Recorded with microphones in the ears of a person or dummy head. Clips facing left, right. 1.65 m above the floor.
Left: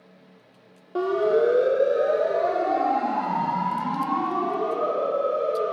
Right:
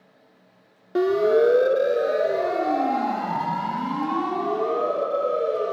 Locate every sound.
0.9 s a siren: 15° right (ahead or behind), 2.5 m; by 5.7 s 35° right (ahead or behind), 7.5 m